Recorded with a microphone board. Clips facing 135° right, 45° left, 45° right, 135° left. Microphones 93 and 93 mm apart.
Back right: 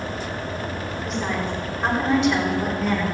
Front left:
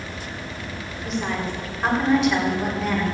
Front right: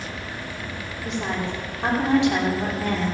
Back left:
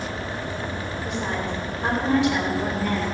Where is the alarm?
I don't hear an alarm.